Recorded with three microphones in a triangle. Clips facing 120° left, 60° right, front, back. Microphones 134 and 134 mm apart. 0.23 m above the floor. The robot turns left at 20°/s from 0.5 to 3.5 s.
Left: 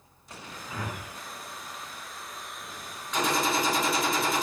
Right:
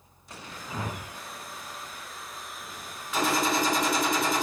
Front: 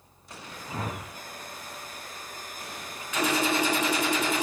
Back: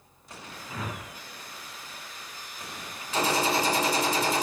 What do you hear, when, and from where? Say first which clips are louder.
0.7 s a whoosh: right 2 dB, front 2 dB; 5° right, 0.7 m; by 1.1 s 15° right, 0.7 m
3.1 s a gunshot: right 1 dB, even; 145° right, 0.9 m; by 4.4 s 150° right, 0.9 m